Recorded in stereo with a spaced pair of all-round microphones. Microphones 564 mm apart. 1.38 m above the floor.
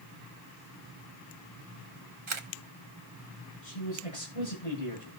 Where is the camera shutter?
55° right (ahead or behind), 1.2 m.